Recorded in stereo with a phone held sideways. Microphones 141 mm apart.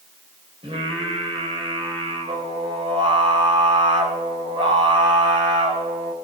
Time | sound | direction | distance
0.6 | singing | 40° right (ahead or behind) | 3 m